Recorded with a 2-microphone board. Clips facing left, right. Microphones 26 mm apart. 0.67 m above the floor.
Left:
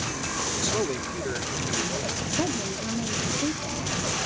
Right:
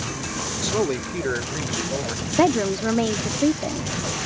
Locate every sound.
0.6 s a man speaking: 10° right (ahead or behind); by 2.3 s 45° right (ahead or behind)
2.4 s a woman speaking: 55° right (ahead or behind)